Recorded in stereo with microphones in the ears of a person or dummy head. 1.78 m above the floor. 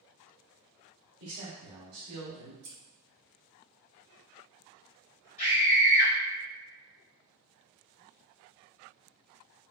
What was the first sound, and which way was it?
A man speaking, 65° right (ahead or behind).